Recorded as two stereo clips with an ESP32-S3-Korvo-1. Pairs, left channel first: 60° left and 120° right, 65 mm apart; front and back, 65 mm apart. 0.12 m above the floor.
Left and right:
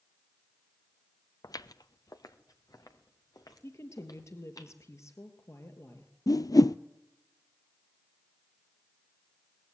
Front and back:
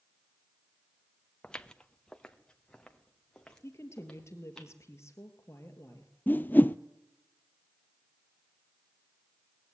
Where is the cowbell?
No cowbell in this recording.